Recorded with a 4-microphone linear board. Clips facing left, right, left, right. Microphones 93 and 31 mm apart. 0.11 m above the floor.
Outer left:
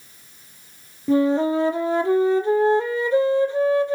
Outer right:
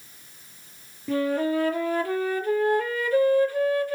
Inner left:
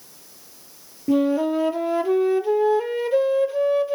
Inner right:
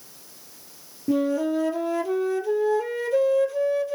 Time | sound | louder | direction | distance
1.1 | a flute | outer left 6 dB, inner left 3 dB | 20° left (ahead or behind) | 0.9 m